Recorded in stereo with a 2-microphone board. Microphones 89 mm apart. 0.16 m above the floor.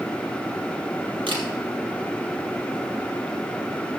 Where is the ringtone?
No ringtone in this recording.